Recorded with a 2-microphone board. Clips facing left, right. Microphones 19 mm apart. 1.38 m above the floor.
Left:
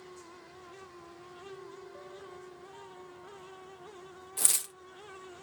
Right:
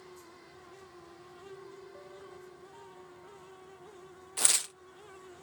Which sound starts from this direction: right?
Tearing paper, at 4.4 s.